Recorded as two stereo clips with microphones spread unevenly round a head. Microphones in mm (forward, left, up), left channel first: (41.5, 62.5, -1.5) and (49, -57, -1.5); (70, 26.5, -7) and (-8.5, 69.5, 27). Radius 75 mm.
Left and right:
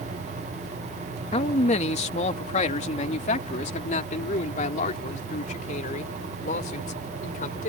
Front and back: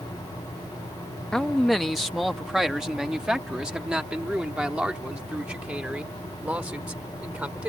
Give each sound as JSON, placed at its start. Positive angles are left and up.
{"t": 1.3, "sound": "a man speaking", "azimuth_deg": 60}